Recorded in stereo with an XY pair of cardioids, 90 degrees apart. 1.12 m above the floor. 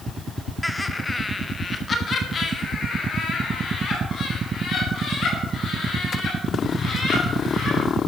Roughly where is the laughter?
Ahead.